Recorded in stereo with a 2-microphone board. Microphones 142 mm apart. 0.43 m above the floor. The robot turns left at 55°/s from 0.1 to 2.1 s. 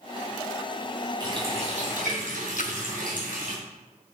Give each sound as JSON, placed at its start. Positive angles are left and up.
{"t": 1.2, "sound": "a running tap", "azimuth_deg": -25, "distance_m": 3.0}
{"t": 2.6, "sound": "a splash", "side_deg": 65, "distance_m": 0.5}